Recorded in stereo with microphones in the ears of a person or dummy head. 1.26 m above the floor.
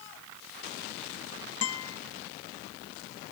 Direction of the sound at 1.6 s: 70° left (ahead or behind).